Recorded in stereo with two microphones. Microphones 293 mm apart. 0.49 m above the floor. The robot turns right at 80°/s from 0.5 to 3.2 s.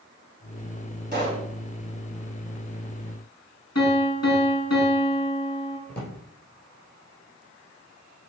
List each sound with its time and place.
1.1 s a pop: 35° right (ahead or behind), 2.5 m; by 1.5 s 5° right (ahead or behind), 2.5 m
3.8 s a piano: 55° left (ahead or behind), 2.5 m
5.9 s a drawer: 35° left (ahead or behind), 3.5 m